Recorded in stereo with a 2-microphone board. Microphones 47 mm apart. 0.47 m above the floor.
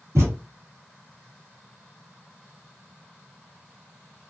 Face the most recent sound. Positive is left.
turn(degrees=-65)  # may be behind; listen again after turning